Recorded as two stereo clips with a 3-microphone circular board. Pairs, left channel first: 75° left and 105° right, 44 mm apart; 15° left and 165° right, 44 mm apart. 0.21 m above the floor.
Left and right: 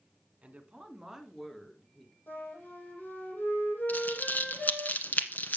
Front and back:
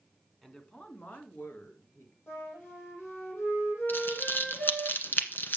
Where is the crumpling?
40° left, 1.3 m.